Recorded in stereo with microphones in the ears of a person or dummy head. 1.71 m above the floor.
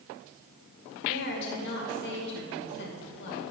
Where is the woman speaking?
60° left (ahead or behind), 2.0 m.